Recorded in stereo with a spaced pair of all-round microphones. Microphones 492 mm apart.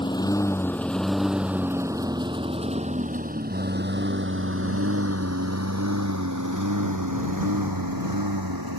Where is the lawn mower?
10° left (ahead or behind); by 8.8 s 45° right (ahead or behind).